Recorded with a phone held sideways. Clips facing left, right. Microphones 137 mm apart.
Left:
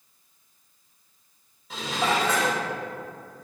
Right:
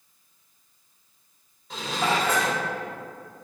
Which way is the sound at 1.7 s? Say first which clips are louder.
Even; 5° left (ahead or behind).